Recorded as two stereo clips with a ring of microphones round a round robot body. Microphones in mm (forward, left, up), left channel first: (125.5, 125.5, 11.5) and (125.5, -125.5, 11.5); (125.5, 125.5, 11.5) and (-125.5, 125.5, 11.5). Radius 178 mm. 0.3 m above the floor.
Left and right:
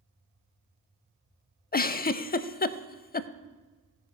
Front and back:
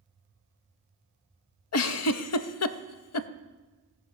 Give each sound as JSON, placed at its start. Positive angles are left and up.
{"t": 1.7, "sound": "a giggle", "azimuth_deg": 30, "distance_m": 0.6}